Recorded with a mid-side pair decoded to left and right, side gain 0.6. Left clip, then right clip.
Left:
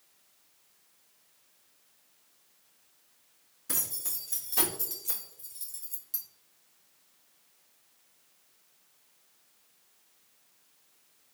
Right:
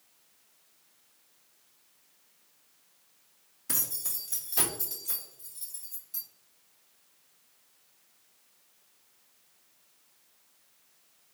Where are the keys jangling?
5° right, 1.7 m; by 6.2 s 50° left, 1.9 m.